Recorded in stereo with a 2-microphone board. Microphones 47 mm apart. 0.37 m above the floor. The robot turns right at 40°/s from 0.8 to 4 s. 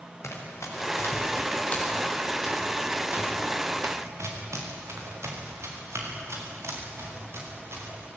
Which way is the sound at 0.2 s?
85° left.